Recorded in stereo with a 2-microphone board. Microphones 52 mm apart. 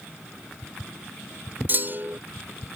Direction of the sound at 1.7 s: 40° right (ahead or behind).